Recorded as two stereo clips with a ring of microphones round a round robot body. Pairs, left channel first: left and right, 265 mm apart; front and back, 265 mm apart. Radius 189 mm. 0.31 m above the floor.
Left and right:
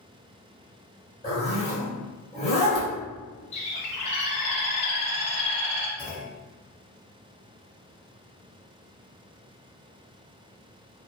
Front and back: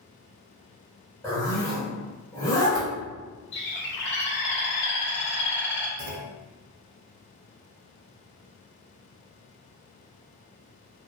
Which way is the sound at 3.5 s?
30° left.